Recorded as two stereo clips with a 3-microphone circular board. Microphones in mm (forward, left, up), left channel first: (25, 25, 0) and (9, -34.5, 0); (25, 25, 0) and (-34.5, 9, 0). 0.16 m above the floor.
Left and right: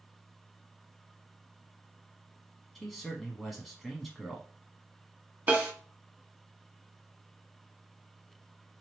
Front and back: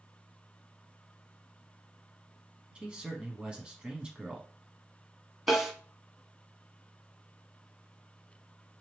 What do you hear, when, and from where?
2.8 s a man speaking: 165° left, 1.0 m
5.5 s a snare drum: 85° right, 1.3 m